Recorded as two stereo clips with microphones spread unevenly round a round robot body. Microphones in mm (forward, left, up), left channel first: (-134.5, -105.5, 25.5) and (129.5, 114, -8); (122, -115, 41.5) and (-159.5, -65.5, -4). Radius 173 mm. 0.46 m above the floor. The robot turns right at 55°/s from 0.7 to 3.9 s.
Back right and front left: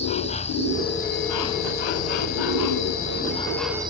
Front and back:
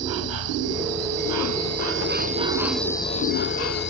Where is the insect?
145° left; by 3.9 s 35° right.